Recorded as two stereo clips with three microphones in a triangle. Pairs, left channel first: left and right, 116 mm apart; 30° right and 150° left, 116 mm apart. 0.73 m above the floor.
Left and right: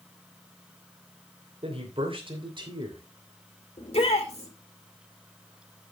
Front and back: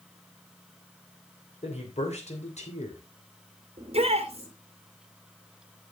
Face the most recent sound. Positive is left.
turn(degrees=120)